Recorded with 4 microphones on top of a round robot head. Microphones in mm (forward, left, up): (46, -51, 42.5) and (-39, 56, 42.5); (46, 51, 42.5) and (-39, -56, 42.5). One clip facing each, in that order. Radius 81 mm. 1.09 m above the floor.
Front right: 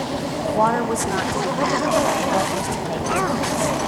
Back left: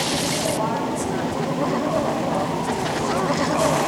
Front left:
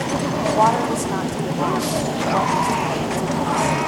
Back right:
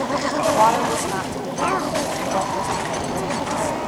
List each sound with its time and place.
0.5 s a woman speaking: 35° right, 1.6 m